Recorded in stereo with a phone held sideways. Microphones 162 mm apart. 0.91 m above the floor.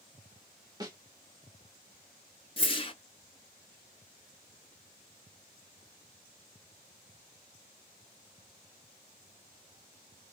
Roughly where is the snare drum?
Right.